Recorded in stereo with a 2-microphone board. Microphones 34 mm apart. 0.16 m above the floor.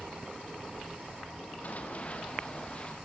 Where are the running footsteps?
45° left (ahead or behind), 2 m; by 3.0 s 25° left (ahead or behind), 3 m.